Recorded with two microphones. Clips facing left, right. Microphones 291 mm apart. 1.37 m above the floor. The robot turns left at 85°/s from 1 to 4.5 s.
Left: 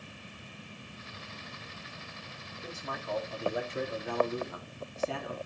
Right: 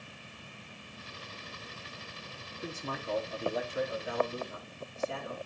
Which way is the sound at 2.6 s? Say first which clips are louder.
Right 2 dB; 115° right.